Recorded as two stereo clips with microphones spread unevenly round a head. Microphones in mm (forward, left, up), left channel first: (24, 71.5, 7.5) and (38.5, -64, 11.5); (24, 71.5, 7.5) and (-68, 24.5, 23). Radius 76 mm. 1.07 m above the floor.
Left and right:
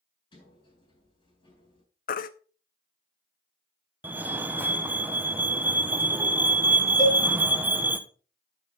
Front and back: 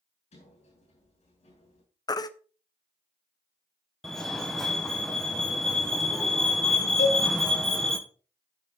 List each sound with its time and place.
0.3 s a sliding door: 40° left, 6.5 m
2.1 s a baby crying: 80° left, 0.7 m
4.0 s a fire alarm: 30° right, 1.1 m
7.0 s a cowbell: 25° left, 3.5 m